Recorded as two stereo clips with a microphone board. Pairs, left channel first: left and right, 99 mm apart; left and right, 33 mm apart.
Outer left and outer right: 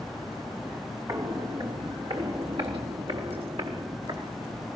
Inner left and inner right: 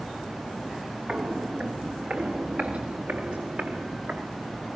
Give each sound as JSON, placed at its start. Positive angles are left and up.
{"t": 1.1, "sound": "footsteps", "side_deg": -40, "distance_m": 2.5}